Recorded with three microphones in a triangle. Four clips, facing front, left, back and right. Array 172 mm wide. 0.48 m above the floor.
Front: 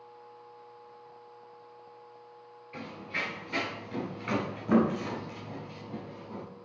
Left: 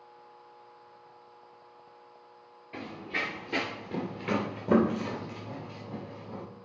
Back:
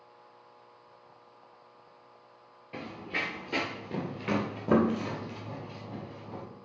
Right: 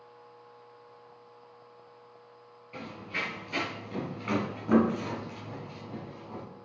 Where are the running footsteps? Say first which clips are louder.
Left 2 dB, back 1 dB; 160° left, 2.5 m; by 6.4 s 150° left, 5.5 m.